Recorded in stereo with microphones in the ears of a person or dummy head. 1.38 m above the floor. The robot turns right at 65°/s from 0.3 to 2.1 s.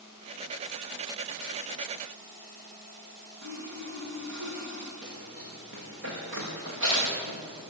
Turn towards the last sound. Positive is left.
turn(degrees=-70)  # may be behind; listen again after turning